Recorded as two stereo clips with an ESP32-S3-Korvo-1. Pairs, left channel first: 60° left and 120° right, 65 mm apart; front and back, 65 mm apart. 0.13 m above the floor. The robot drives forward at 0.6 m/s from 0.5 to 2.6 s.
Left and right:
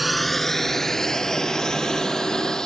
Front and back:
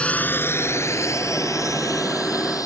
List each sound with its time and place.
0.0 s a drone: 30° right; by 2.7 s 20° right